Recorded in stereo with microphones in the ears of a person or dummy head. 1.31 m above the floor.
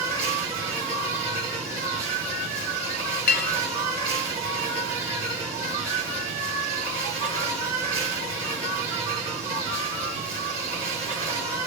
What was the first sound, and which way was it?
An insect, 5° left (ahead or behind).